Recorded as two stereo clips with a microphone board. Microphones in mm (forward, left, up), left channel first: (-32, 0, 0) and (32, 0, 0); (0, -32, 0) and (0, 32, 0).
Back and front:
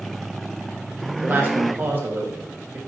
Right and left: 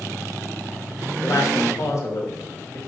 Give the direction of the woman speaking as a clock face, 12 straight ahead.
2 o'clock.